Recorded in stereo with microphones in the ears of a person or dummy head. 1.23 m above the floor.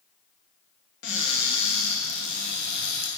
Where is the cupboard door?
60° left (ahead or behind), 1.3 m.